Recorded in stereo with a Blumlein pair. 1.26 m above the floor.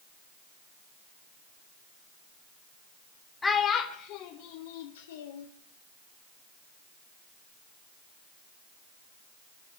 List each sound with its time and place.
3.4 s a child speaking: 15° left, 0.9 m; by 5.5 s 60° left, 1.9 m